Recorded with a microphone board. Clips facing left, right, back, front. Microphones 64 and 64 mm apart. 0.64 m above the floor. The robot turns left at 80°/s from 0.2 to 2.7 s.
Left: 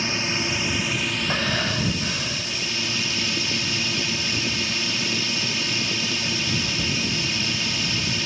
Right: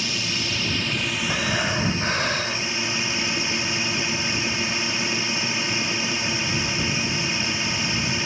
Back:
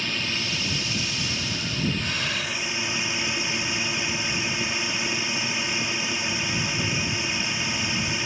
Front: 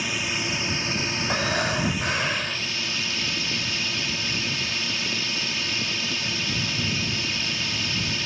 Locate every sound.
0.0 s a drone: 70° left; by 8.2 s 130° right
1.3 s breathing: 15° left; by 2.6 s 90° right